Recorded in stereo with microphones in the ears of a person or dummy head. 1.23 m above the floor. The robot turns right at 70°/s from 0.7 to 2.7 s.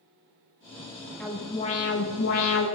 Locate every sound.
1.2 s an alarm: 5° left, 3 m; by 2.6 s 105° left, 3 m